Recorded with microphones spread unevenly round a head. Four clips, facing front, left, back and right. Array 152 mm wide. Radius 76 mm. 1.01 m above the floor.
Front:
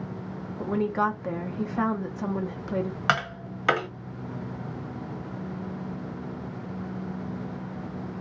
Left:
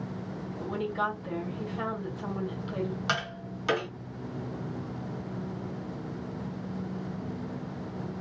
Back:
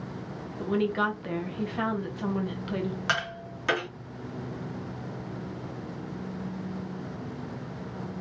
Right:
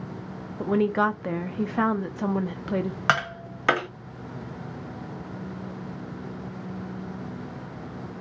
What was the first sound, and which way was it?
A woman speaking, 90° right.